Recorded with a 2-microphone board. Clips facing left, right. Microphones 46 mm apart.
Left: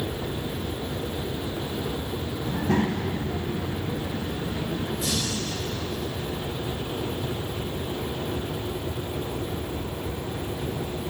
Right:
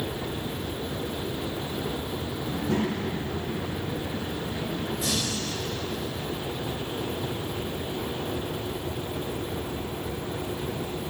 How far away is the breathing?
About 2.5 m.